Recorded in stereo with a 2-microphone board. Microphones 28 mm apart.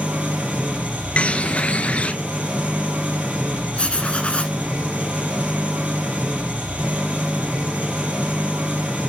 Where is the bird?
50° left (ahead or behind), 0.6 m.